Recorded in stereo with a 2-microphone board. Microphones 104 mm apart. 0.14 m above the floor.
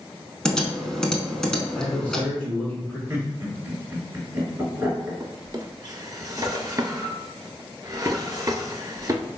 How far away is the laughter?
About 1.8 m.